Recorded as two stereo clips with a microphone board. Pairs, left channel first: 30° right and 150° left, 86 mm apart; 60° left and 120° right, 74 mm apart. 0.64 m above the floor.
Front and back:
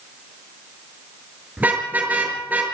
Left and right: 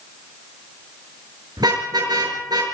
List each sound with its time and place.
1.6 s a car horn: 140° right, 6.5 m